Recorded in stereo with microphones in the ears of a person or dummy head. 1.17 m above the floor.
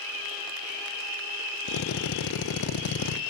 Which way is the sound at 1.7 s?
70° left (ahead or behind).